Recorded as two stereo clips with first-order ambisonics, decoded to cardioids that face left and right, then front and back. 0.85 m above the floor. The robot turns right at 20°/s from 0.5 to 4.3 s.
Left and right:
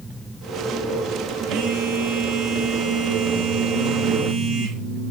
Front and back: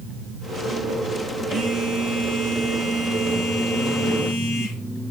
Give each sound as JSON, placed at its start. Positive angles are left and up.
{"t": 1.5, "sound": "a phone buzzing", "azimuth_deg": -100, "distance_m": 3.0}